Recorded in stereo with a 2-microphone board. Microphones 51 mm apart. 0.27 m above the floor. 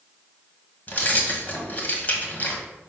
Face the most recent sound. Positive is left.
turn(degrees=35)  # may be behind; listen again after turning